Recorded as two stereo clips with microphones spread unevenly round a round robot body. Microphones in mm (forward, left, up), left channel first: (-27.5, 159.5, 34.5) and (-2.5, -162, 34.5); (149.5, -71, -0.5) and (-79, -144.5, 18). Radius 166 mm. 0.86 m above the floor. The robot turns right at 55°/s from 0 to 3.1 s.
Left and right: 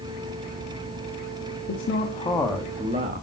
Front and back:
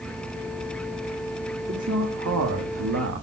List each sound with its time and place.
1.7 s a man speaking: 140° left, 1.7 m; by 3.2 s 145° right, 1.7 m